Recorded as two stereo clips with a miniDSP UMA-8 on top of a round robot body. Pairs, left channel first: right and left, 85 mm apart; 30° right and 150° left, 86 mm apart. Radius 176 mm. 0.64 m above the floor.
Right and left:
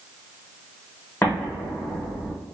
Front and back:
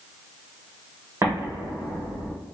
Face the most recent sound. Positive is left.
turn(degrees=-150)